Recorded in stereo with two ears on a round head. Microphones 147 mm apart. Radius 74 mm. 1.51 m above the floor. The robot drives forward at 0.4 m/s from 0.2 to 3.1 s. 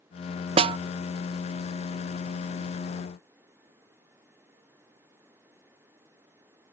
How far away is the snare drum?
About 0.6 m.